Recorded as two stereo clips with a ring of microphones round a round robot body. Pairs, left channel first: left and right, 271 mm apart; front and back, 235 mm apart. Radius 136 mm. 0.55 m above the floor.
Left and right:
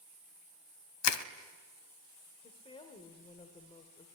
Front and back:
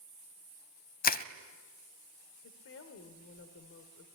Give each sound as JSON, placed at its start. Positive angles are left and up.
{"t": 1.0, "sound": "crushing", "azimuth_deg": 55, "distance_m": 1.1}
{"t": 2.4, "sound": "a woman speaking", "azimuth_deg": 20, "distance_m": 2.0}